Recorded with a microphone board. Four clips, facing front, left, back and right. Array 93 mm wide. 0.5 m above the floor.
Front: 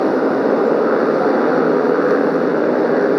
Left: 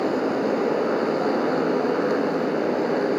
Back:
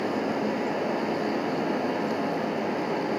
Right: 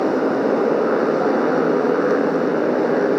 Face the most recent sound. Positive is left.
turn(degrees=-20)